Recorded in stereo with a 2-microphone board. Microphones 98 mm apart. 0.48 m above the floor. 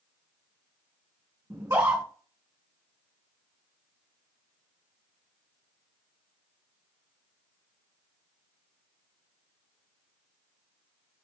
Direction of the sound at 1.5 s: 30° right (ahead or behind).